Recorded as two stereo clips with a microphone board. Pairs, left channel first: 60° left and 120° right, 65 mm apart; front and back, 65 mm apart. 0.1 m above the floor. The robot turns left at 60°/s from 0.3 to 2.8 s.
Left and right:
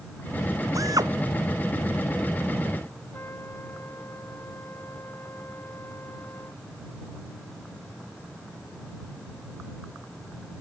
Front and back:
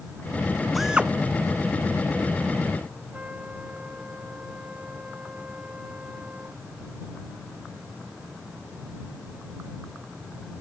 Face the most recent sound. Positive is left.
turn(degrees=110)